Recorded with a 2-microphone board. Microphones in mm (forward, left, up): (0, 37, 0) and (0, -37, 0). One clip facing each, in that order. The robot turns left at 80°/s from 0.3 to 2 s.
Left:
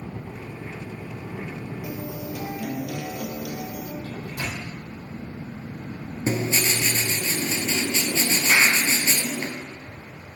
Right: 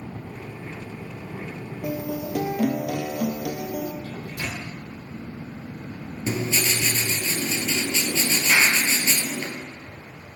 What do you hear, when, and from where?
1.8 s a guitar: 55° right (ahead or behind), 1.0 m; by 3.9 s 65° right (ahead or behind), 1.0 m
4.0 s a microwave: 70° left (ahead or behind), 3.5 m
6.3 s writing: 30° left (ahead or behind), 1.1 m
8.5 s a clap: 25° left (ahead or behind), 2.5 m